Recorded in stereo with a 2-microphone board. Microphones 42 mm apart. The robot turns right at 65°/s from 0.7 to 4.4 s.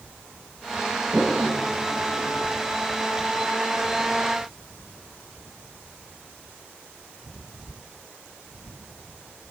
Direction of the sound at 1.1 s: 15° right (ahead or behind).